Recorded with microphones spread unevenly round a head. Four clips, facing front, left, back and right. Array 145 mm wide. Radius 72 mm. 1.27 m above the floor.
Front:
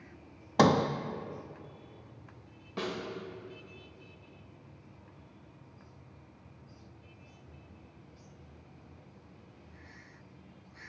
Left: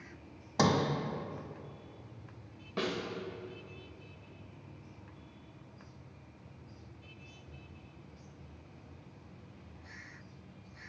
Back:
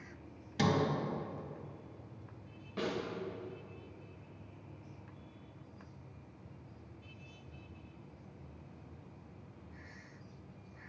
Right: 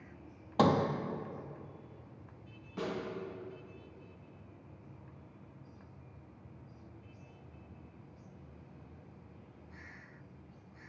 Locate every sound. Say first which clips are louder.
0.6 s a sliding door: right 1 dB, front 7 dB; 10° right, 0.5 m
2.8 s a snare drum: left 2 dB, even; 75° left, 1.8 m